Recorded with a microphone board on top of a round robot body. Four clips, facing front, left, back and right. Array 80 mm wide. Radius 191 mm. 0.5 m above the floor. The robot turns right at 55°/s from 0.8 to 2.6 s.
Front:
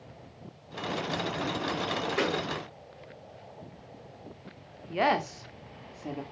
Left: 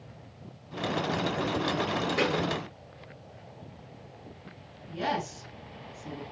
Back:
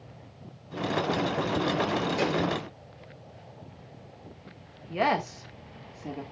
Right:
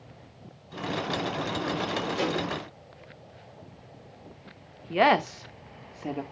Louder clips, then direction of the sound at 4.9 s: Right 9 dB, even; 85° right.